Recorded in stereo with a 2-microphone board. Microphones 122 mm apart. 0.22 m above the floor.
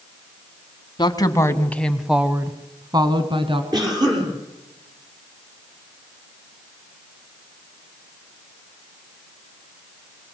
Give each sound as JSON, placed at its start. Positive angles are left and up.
{"t": 1.0, "sound": "a woman speaking", "side_deg": 40, "distance_m": 1.7}
{"t": 3.7, "sound": "a cough", "side_deg": -35, "distance_m": 7.0}